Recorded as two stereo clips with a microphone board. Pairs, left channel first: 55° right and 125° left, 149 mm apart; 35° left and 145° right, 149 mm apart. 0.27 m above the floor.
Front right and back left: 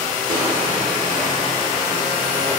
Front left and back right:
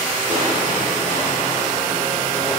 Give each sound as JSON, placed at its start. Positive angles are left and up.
{"t": 0.3, "sound": "crushing", "azimuth_deg": -175, "distance_m": 4.0}